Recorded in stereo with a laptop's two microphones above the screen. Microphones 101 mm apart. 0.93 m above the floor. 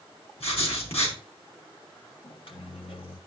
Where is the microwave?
60° left (ahead or behind), 1.3 m.